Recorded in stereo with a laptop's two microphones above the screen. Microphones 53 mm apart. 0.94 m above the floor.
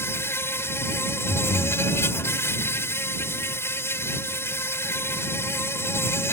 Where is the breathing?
70° left (ahead or behind).